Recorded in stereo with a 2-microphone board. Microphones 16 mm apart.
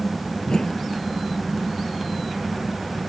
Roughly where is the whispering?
I don't hear whispering.